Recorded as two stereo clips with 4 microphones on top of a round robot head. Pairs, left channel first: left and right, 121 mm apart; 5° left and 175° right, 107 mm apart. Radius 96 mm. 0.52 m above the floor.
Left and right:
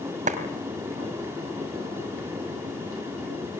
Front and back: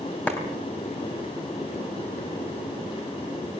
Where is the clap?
75° right, 3 m.